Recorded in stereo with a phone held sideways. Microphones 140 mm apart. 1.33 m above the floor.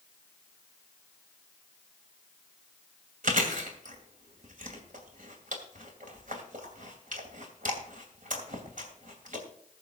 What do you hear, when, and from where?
3.2 s chewing: 70° right (ahead or behind), 2.5 m